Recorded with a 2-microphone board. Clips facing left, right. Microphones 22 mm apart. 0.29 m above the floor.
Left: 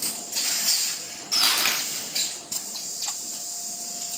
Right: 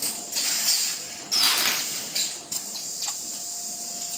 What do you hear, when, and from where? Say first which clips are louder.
1.3 s crumpling: even; 60° left (ahead or behind), 3.5 m